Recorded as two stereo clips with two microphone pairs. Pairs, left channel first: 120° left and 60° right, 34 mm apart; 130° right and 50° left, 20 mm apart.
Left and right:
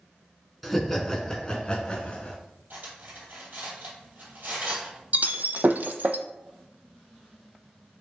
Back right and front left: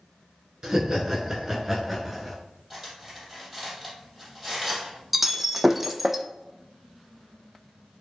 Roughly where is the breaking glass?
Ahead right.